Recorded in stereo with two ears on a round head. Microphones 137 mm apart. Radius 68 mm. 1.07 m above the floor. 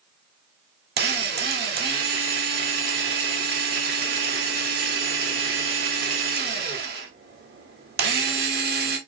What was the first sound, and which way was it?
A drill, 75° right (ahead or behind).